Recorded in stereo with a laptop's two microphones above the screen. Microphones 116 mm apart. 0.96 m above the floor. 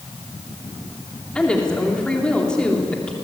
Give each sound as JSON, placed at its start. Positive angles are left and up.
{"t": 1.4, "sound": "a woman speaking", "side_deg": 10, "distance_m": 2.5}